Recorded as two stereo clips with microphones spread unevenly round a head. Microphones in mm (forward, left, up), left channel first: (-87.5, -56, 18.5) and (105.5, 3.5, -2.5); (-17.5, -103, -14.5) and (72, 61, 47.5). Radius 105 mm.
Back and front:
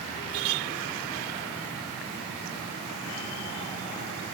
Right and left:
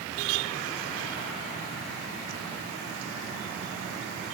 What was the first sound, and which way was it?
Only background noise.